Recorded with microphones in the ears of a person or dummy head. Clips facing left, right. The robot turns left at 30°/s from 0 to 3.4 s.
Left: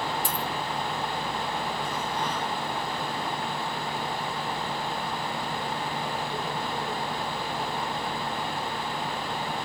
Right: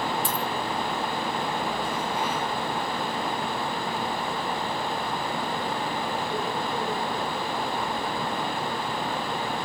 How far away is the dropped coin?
About 1.3 m.